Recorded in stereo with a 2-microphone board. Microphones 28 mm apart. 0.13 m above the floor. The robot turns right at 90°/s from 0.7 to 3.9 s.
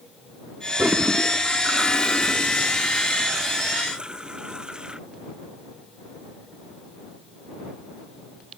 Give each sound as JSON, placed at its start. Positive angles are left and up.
{"t": 0.8, "sound": "a toilet flushing", "azimuth_deg": -70}